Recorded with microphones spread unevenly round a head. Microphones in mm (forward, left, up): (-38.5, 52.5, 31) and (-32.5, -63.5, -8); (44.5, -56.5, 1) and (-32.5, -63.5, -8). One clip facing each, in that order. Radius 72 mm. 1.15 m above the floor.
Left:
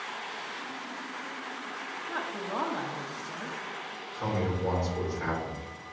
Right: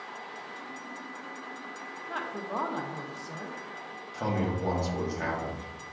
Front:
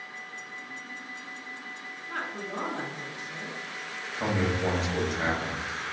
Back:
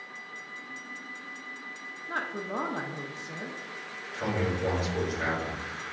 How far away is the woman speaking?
About 0.6 m.